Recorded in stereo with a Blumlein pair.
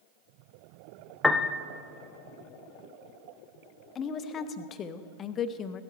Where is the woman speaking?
25° left, 0.7 m.